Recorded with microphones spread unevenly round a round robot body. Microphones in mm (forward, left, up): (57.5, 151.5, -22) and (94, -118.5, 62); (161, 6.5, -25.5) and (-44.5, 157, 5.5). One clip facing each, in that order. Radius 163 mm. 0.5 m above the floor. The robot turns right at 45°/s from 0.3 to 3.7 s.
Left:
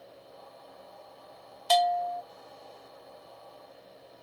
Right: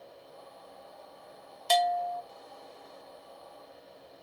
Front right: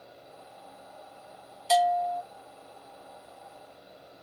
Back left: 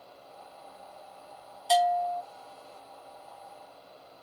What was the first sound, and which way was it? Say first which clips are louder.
A bell: left 2 dB, front right 1 dB; 20° right.